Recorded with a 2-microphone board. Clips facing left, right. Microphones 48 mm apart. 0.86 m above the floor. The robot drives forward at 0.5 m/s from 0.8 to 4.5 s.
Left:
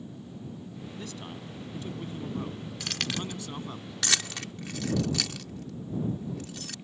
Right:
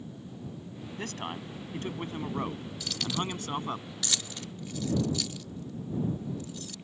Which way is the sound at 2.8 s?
60° left (ahead or behind).